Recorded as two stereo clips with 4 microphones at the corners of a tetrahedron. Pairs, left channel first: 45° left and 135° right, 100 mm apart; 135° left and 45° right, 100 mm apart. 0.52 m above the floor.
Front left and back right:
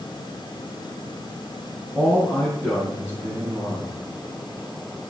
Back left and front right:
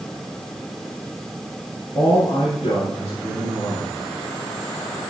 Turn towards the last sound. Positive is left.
turn(degrees=135)